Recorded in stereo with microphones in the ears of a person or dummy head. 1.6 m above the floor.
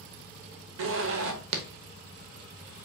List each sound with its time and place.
0.8 s a zipper: 80° right, 0.9 m